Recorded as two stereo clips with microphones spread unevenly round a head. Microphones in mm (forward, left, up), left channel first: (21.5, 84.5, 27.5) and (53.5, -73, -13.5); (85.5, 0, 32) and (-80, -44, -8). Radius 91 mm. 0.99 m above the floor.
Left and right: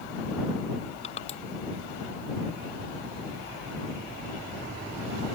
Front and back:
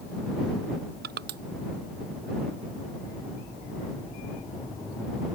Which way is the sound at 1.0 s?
160° left.